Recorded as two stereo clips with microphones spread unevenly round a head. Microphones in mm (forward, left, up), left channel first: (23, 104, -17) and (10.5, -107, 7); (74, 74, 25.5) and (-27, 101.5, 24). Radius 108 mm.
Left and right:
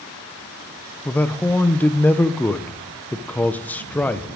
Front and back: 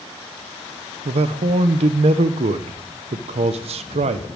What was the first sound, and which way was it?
A man speaking, 175° left.